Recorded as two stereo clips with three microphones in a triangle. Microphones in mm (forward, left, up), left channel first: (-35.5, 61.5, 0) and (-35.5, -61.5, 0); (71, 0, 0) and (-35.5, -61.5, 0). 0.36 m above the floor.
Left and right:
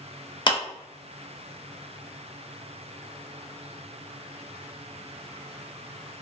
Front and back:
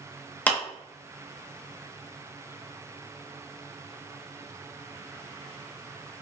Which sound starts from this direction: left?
A clap, at 0.5 s.